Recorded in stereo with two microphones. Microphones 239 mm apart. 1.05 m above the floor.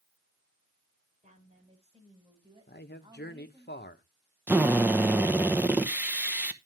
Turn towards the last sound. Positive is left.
turn(degrees=-10)  # may be behind; listen again after turning